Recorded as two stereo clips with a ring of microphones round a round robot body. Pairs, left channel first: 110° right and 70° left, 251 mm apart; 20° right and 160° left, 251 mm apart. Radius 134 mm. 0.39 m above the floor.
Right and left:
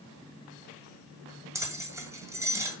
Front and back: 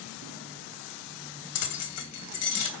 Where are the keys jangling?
10° right, 2.0 m.